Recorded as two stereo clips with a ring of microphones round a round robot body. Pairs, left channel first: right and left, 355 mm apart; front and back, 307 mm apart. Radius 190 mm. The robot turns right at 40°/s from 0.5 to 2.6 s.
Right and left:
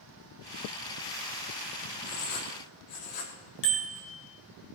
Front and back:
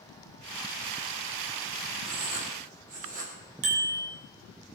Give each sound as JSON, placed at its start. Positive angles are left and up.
{"t": 2.0, "sound": "writing", "azimuth_deg": -135, "distance_m": 3.0}
{"t": 3.6, "sound": "a bicycle bell", "azimuth_deg": -150, "distance_m": 3.5}